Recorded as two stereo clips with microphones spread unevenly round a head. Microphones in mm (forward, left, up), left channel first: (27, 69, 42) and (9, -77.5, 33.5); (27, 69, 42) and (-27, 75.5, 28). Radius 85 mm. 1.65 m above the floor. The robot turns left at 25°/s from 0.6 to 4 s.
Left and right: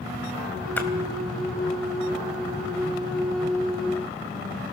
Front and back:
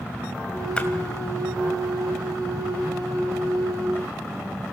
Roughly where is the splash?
Ahead.